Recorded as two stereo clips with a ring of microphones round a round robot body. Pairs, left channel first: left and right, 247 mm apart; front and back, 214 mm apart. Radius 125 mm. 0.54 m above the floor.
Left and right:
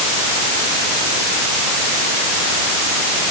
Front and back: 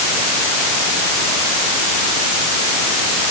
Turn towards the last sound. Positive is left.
No sound to turn to.